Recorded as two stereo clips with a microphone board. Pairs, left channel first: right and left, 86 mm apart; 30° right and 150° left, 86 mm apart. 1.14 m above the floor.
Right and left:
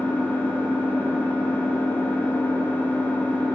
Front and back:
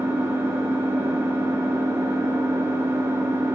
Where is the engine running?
155° right, 0.8 m.